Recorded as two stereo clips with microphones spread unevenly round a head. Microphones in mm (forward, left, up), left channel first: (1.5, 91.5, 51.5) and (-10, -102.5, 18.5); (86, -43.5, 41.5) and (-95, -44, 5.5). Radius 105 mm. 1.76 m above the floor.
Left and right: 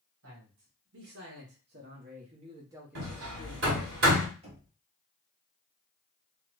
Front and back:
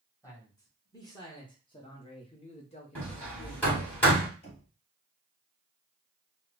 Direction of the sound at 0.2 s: 65° right.